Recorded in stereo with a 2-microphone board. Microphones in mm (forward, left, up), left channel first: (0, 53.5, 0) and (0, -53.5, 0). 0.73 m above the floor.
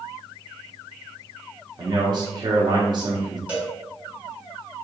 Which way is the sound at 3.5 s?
15° right (ahead or behind).